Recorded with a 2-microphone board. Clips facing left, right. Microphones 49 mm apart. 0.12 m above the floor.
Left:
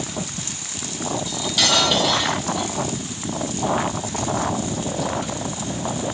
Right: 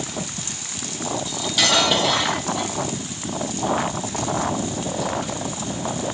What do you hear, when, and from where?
1.3 s cutlery clinking: 5° right (ahead or behind), 2 m